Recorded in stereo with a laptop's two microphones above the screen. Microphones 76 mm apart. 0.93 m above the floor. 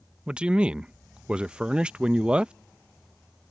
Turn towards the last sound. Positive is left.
turn(degrees=-15)  # may be behind; listen again after turning